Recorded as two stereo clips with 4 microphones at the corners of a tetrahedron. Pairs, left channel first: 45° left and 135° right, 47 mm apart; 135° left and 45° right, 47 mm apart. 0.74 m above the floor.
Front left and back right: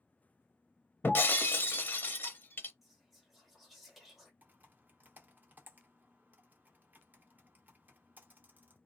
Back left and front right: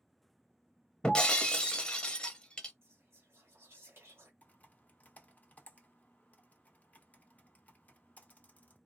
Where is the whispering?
50° right, 1.8 m.